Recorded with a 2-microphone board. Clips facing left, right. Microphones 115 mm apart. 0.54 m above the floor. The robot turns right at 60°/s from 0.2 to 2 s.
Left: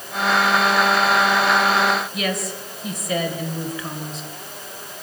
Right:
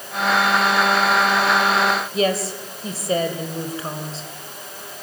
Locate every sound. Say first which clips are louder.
2.1 s a woman speaking: right 5 dB; 30° right (ahead or behind), 3 m